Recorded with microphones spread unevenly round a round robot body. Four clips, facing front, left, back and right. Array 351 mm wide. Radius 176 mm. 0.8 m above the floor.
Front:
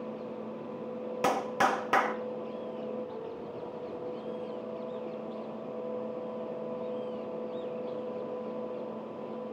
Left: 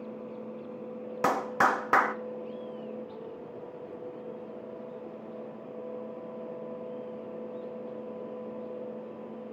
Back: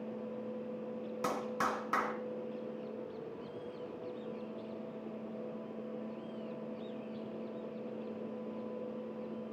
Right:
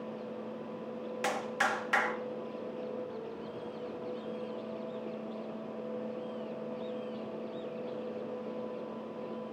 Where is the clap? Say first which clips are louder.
Left 7 dB, front 8 dB; 55° left, 1.1 m.